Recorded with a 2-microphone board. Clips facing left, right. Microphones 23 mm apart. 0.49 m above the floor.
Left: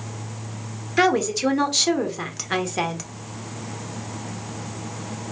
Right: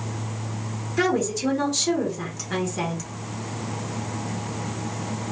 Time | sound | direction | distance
1.0 | a woman speaking | 40° left (ahead or behind) | 1.0 m